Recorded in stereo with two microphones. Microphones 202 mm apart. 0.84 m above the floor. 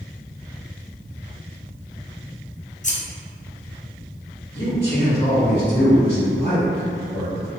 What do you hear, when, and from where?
2.8 s scissors: 40° left (ahead or behind), 0.6 m
4.5 s a man speaking: 50° left (ahead or behind), 1.6 m